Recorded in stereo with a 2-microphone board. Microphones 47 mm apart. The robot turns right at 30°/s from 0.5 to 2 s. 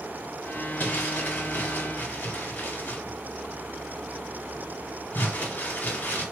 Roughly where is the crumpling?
Left.